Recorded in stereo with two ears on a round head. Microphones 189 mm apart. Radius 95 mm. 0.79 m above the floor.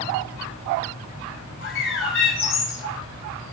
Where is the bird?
70° left (ahead or behind), 3.5 m.